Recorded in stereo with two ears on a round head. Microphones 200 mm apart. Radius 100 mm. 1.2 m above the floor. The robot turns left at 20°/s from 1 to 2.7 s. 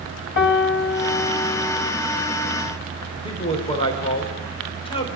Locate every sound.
0.4 s a piano: 50° left (ahead or behind), 2.0 m; by 1.9 s 30° left (ahead or behind), 2.0 m
3.2 s a man speaking: 25° left (ahead or behind), 4.5 m